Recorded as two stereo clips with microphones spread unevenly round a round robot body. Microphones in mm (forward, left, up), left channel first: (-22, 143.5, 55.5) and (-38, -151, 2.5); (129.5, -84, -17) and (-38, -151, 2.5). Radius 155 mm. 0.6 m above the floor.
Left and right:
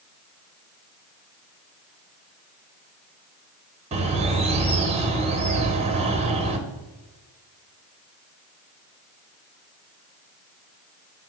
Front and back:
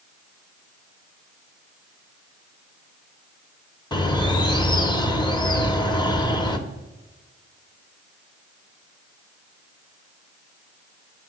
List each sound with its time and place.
3.9 s a bird: 35° right, 0.9 m